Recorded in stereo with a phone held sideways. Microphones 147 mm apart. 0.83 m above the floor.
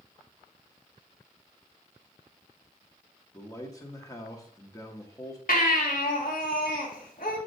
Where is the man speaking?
25° left (ahead or behind), 1.1 m.